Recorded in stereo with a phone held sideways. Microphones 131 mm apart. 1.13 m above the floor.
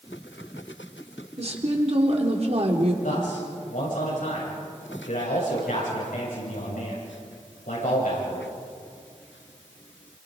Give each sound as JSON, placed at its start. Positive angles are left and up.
{"t": 1.4, "sound": "a woman speaking", "side_deg": -50, "distance_m": 3.0}
{"t": 3.0, "sound": "a man speaking", "side_deg": 80, "distance_m": 7.0}